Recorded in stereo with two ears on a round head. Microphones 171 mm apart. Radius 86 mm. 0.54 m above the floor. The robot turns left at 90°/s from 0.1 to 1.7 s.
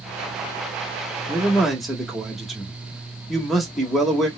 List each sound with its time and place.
1.3 s a man speaking: 10° right (ahead or behind), 0.9 m; by 4.3 s centre (ahead or behind), 0.9 m